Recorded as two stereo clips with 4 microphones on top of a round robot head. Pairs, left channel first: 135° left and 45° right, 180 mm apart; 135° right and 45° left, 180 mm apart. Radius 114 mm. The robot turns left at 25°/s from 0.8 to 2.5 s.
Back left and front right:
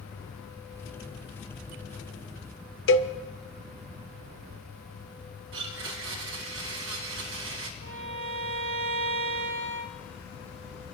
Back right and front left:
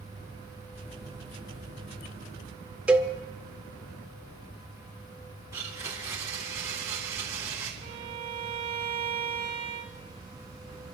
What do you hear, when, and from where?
2.9 s a cowbell: 130° left, 0.8 m
5.5 s a blender: 30° right, 2 m
7.8 s a violin: 20° right, 1.4 m